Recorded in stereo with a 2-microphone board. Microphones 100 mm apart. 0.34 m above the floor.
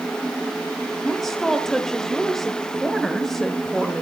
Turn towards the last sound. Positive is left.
turn(degrees=5)  # may be behind; listen again after turning